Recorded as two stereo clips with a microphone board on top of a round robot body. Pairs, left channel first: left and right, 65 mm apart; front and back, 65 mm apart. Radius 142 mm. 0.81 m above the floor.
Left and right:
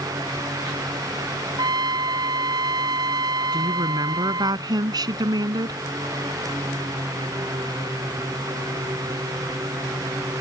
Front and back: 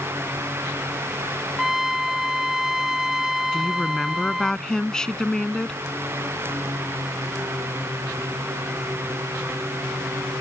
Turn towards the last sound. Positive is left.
turn(degrees=-80)